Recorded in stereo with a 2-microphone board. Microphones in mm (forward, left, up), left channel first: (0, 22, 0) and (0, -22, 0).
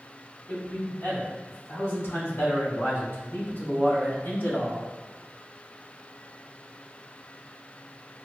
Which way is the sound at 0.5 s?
50° left (ahead or behind).